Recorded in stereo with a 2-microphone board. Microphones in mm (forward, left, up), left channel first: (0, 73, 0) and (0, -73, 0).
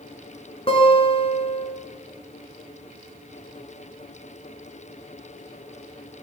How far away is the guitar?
About 2 m.